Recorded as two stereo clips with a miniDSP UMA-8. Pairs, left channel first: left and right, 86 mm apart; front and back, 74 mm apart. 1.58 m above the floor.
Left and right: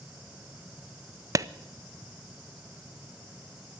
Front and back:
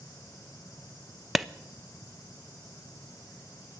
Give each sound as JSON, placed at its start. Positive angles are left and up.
{"t": 1.4, "sound": "a clap", "azimuth_deg": -95, "distance_m": 0.5}